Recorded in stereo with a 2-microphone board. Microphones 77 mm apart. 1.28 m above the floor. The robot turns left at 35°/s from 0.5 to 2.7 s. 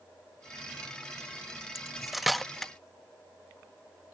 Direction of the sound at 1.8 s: 5° right (ahead or behind).